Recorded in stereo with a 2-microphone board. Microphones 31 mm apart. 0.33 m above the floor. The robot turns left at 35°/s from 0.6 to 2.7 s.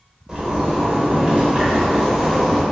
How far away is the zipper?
About 0.7 m.